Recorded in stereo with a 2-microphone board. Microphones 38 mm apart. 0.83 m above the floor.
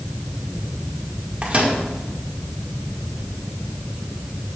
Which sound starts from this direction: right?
A microwave, at 1.4 s.